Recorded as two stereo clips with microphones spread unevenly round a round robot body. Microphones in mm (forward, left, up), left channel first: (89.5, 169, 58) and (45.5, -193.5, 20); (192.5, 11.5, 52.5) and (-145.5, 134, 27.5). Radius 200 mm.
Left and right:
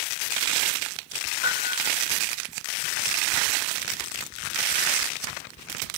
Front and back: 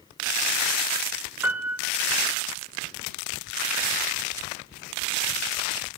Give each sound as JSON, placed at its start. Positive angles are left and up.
{"t": 1.4, "sound": "a piano", "azimuth_deg": 75, "distance_m": 2.0}